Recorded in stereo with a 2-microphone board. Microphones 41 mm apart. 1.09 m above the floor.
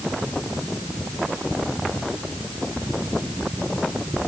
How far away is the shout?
No shout in this recording.